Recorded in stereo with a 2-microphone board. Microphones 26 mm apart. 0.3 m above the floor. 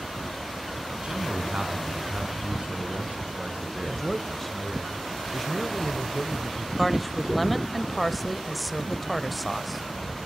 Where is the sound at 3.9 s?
10° left (ahead or behind), 1.2 m.